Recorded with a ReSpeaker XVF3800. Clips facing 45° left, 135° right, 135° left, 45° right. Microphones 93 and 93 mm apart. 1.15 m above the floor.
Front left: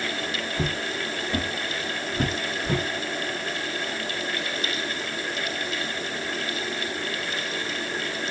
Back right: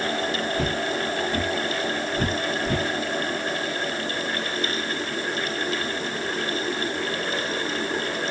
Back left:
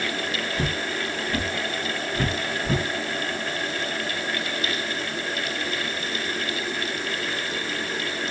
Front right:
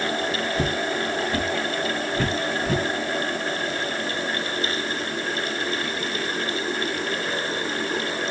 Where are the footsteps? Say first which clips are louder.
Back right 4 dB, front right 3 dB; 15° right, 1.4 m; by 2.8 s 45° left, 2 m.